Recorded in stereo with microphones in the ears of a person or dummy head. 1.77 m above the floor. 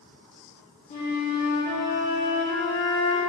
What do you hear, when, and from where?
0.9 s a flute: 40° left (ahead or behind), 0.7 m